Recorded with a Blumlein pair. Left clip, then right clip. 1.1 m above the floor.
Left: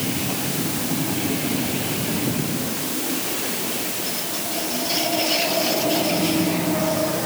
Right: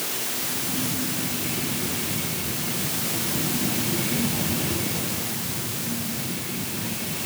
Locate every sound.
Only background noise.